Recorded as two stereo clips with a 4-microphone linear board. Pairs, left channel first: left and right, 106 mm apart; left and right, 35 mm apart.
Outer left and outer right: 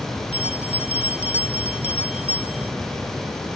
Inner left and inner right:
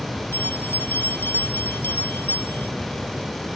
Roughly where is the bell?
Left.